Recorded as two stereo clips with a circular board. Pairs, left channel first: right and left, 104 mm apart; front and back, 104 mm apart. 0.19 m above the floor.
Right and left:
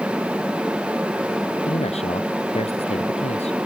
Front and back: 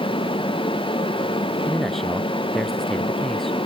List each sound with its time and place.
1.7 s a man speaking: 90° right